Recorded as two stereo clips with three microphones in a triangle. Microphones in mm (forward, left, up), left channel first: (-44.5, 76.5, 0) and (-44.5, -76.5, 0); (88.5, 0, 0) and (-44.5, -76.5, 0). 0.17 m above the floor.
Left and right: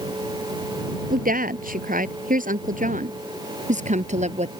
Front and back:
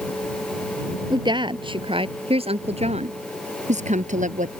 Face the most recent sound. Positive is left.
turn(degrees=-125)